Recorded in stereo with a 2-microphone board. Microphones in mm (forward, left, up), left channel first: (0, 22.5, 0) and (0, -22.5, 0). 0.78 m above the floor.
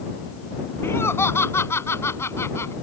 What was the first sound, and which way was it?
Laughter, 70° left (ahead or behind).